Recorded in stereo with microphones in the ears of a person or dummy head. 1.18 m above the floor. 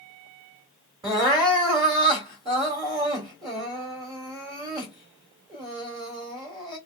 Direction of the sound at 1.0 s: 20° right (ahead or behind).